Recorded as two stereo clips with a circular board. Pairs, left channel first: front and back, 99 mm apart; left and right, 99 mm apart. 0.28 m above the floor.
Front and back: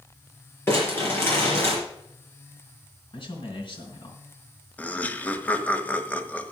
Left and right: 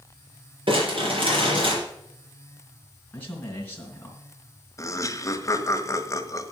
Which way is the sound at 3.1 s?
20° left.